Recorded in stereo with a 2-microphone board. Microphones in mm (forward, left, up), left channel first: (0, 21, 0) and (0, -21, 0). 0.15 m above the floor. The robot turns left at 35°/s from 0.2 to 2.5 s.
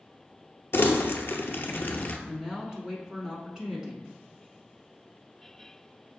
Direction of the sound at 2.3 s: 15° right (ahead or behind).